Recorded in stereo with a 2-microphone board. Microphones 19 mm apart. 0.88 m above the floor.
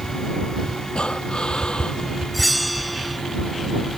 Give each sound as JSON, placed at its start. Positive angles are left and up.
{"t": 0.9, "sound": "breathing", "side_deg": 50}
{"t": 2.3, "sound": "a bell", "side_deg": 0}